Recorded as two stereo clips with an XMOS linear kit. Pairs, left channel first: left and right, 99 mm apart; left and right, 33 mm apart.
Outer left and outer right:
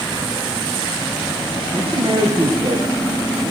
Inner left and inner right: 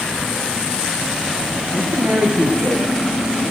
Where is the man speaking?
65° right (ahead or behind), 3.5 m; by 3.5 s 60° right (ahead or behind), 5 m.